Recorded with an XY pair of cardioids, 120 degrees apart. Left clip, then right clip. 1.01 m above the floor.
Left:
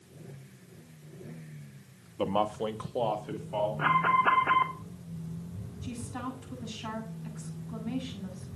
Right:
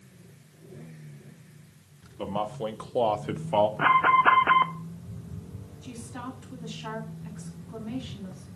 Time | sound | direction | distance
2.2 | a man speaking | 25° left | 1.6 m
3.8 | an alarm | 35° right | 1.0 m
5.8 | a woman speaking | 5° left | 7.5 m